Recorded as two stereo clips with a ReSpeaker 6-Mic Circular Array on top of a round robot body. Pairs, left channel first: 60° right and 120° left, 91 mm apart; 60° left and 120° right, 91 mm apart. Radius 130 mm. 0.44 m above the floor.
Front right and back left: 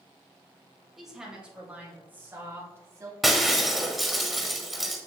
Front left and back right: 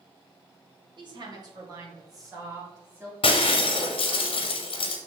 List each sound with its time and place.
1.0 s a woman speaking: 150° right, 2.5 m; by 3.1 s straight behind, 3.5 m
3.2 s breaking glass: 30° left, 0.8 m